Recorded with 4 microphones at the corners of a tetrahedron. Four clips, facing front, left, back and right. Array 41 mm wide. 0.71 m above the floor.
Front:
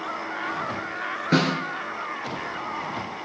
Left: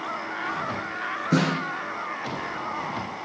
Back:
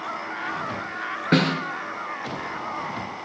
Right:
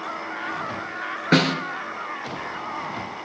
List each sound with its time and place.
1.3 s a snare drum: 115° right, 2.5 m